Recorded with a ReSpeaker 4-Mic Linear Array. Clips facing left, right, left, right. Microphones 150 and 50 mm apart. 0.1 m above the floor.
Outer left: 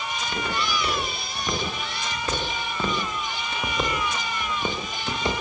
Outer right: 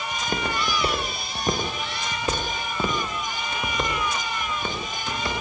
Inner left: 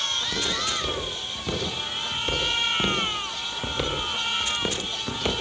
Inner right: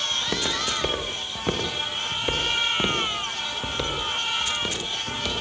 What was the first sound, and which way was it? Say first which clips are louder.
Footsteps: outer right 2 dB, inner right 1 dB; 45° right (ahead or behind).